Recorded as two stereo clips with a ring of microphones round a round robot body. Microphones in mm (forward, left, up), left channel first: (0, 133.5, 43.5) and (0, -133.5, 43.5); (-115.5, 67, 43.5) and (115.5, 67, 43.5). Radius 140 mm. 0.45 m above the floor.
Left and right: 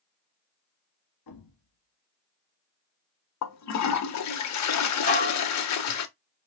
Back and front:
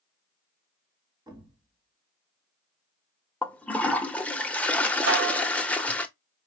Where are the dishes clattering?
30° left, 1.8 m.